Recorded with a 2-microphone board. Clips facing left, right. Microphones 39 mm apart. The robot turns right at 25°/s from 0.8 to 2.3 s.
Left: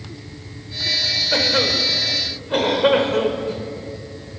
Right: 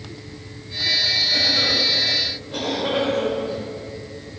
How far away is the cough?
About 4 m.